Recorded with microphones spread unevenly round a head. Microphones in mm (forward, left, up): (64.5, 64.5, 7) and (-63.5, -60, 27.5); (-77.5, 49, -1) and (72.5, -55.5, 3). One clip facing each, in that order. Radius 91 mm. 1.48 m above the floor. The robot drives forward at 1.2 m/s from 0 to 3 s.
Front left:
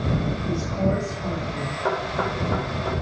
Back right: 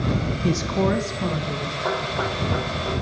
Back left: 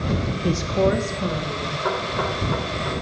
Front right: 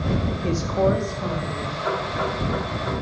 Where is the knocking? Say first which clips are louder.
Front left 1 dB, back left 1 dB; 120° left, 5.5 m; by 3.0 s 130° left, 6.5 m.